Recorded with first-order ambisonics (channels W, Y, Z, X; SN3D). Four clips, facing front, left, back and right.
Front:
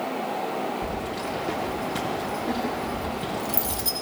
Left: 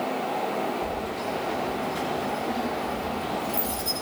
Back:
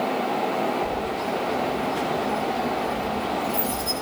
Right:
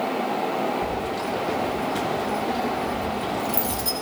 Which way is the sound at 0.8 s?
35° right.